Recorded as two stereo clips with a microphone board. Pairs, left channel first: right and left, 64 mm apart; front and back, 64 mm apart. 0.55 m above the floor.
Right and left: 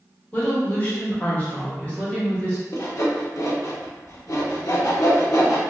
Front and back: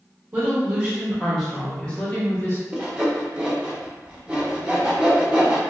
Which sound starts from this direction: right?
Sawing, at 2.7 s.